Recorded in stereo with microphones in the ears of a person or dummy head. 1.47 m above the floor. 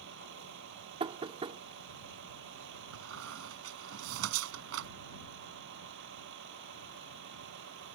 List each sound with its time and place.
0.0 s a vehicle: 70° right (ahead or behind)
1.0 s knocking: 30° right (ahead or behind)
2.9 s a squeak: 80° right